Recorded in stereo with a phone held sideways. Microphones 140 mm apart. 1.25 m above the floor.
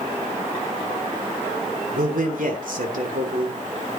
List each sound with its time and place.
1.9 s a man speaking: 80° right, 3.5 m